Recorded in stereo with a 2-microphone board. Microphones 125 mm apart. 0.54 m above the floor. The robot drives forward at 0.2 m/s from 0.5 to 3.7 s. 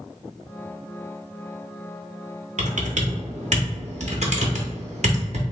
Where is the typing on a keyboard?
75° right (ahead or behind), 0.6 m; by 5.4 s 65° right (ahead or behind), 0.7 m.